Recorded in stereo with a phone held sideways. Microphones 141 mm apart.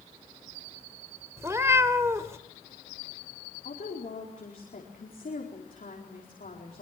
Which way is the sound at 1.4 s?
20° right (ahead or behind).